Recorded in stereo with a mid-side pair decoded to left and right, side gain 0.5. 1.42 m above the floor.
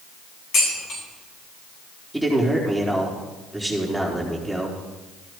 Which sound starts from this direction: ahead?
A man speaking, at 2.1 s.